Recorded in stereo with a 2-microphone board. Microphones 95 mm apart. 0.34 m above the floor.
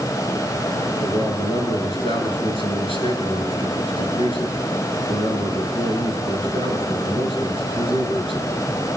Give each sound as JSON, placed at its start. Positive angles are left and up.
{"t": 1.0, "sound": "a man speaking", "side_deg": 70, "distance_m": 5.5}